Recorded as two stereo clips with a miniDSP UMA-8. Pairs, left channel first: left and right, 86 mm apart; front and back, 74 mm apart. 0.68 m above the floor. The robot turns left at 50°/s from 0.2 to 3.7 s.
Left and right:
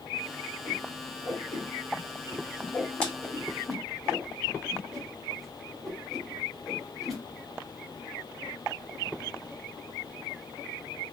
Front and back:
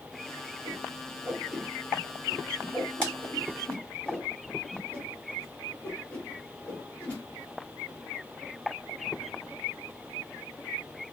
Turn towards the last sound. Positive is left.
turn(degrees=10)